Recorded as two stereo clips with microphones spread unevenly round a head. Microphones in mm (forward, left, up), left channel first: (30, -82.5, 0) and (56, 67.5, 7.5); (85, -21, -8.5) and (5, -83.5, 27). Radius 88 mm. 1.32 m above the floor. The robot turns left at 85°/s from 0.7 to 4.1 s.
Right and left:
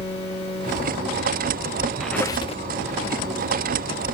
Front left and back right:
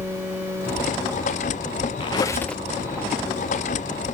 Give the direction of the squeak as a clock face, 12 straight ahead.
12 o'clock.